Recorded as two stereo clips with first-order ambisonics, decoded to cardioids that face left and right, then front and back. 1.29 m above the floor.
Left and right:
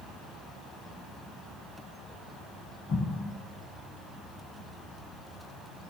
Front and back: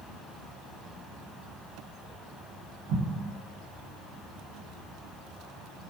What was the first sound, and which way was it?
An explosion, 145° left.